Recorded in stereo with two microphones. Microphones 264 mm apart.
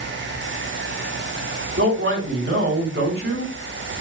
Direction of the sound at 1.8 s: 55° right (ahead or behind).